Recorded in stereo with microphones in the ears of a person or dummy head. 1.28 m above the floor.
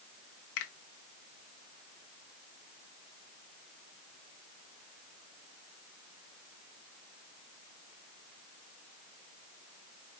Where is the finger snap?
70° left (ahead or behind), 0.8 m.